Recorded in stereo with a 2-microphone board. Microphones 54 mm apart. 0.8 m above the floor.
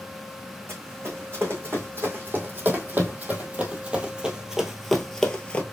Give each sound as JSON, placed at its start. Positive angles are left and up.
{"t": 0.7, "sound": "running footsteps", "side_deg": -45, "distance_m": 2.5}